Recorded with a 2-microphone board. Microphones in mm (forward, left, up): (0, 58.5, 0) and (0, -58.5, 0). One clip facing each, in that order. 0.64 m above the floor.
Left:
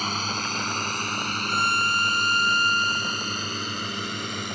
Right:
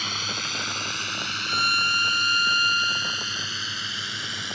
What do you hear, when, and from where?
0.0 s a drone: 40° left (ahead or behind); by 4.5 s 50° left (ahead or behind)
1.5 s a violin: 30° left (ahead or behind)